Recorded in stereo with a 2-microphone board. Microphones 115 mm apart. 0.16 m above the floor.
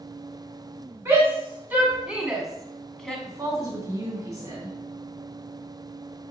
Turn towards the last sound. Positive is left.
turn(degrees=-30)  # may be behind; listen again after turning